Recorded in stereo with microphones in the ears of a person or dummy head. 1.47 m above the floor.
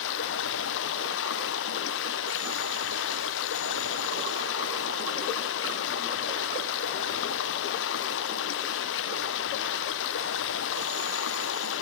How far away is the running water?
About 0.8 m.